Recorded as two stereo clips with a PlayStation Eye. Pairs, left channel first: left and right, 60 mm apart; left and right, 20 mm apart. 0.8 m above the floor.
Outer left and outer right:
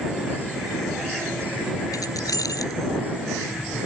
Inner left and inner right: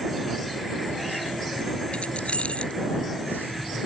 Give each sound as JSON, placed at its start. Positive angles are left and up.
{"t": 1.9, "sound": "keys jangling", "side_deg": 85}